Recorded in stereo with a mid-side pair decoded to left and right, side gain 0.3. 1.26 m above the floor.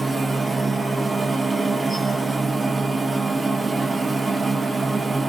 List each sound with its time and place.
0.0 s a machine running: 35° right, 0.7 m